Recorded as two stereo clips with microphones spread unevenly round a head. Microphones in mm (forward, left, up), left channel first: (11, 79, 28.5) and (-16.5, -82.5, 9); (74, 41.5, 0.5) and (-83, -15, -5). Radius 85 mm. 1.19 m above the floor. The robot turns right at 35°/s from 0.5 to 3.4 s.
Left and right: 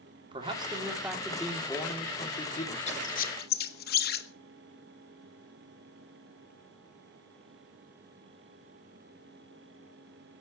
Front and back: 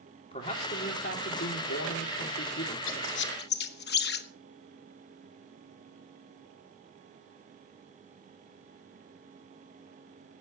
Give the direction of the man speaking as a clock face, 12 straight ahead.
1 o'clock.